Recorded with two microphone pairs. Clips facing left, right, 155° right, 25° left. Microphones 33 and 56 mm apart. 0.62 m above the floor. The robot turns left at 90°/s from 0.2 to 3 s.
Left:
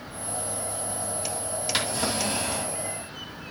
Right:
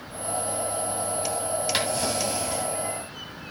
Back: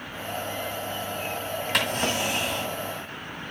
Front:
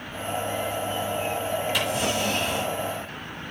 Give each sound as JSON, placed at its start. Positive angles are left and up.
{"t": 1.7, "sound": "a drawer", "azimuth_deg": -175, "distance_m": 2.0}